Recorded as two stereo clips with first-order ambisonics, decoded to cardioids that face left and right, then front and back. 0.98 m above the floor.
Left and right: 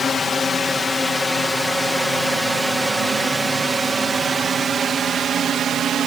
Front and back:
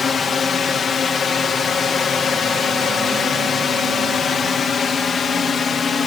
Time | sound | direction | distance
0.0 | a drone | 45° left | ?